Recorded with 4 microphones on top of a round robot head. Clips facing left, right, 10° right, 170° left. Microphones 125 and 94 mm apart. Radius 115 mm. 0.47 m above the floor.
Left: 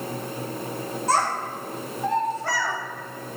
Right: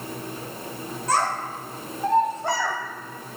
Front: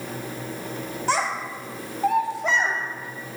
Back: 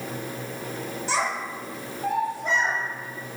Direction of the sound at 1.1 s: 30° left.